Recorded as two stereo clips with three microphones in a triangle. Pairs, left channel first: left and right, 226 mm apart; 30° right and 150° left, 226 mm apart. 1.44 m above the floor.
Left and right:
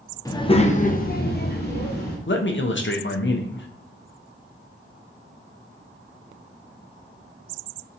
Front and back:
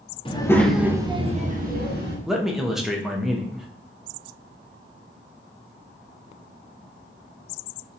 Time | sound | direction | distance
0.2 | a child speaking | 20° left | 0.8 m
2.3 | a man speaking | 65° left | 0.5 m